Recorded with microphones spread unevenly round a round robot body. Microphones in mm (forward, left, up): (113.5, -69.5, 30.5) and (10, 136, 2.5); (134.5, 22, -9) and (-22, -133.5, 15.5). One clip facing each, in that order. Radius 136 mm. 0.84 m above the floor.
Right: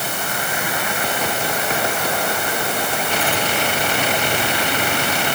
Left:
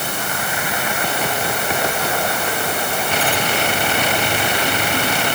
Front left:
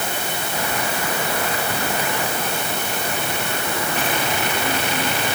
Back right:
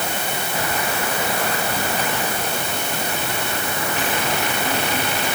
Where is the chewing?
I don't hear chewing.